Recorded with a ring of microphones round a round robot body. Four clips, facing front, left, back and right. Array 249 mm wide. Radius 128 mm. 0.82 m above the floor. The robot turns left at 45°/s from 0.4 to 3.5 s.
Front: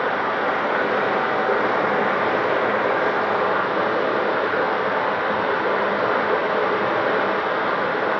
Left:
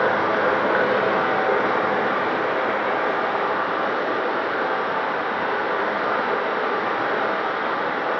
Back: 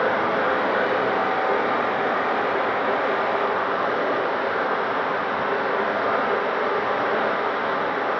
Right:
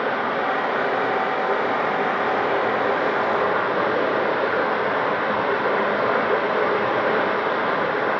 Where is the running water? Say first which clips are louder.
Left 3 dB, back 1 dB; 90° left, 1.0 m; by 8.2 s 50° right, 1.0 m.